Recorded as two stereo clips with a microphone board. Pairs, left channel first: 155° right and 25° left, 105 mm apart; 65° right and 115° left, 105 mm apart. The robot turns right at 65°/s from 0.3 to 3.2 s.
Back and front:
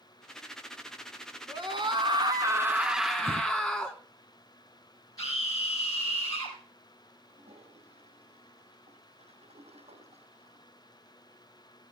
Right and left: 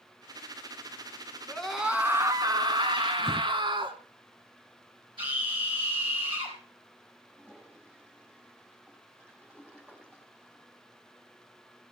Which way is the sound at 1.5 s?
10° left.